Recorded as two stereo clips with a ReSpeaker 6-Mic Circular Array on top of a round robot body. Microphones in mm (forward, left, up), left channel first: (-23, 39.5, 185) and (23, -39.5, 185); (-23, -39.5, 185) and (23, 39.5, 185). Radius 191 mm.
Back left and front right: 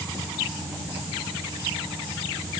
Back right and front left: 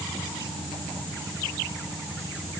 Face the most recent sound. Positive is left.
No sound to turn to.